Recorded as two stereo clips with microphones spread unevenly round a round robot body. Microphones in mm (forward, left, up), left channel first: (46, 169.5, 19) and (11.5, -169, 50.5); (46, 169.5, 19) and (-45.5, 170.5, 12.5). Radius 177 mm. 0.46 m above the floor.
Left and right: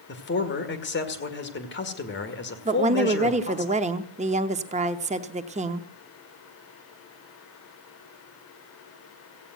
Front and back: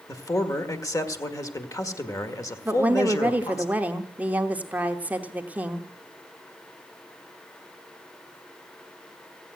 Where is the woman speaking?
150° right, 0.8 m.